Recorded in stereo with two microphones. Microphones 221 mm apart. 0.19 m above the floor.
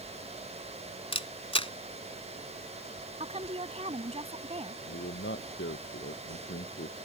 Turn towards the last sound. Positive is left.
turn(degrees=70)  # may be behind; listen again after turning